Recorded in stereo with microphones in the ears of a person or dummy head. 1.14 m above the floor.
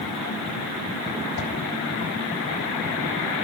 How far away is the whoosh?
About 4.5 m.